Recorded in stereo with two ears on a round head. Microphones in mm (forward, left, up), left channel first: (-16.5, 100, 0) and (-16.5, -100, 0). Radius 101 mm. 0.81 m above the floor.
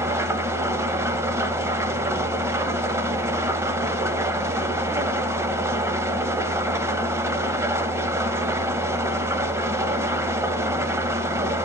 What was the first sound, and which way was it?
An engine running, 10° right (ahead or behind).